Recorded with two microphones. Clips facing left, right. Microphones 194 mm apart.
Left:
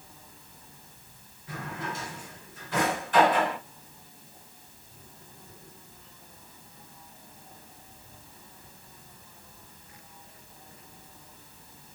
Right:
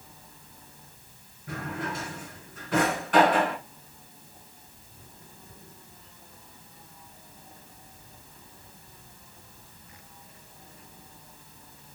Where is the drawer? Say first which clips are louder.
Right 3 dB; 65° right (ahead or behind), 3.5 m.